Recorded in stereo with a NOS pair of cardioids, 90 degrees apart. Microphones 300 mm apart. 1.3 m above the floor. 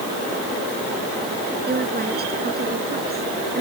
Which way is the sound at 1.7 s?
30° right.